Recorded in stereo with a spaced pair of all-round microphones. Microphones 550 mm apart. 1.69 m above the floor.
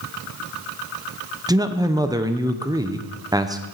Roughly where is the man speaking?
Centre.